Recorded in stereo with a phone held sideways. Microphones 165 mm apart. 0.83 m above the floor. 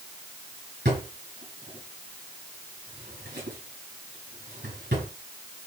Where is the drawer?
90° right, 5.5 m.